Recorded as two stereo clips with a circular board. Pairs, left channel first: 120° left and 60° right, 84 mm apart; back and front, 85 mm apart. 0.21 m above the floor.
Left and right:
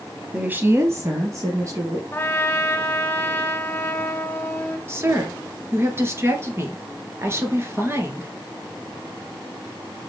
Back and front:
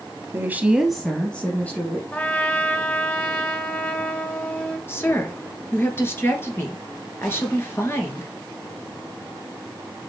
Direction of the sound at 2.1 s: 140° left.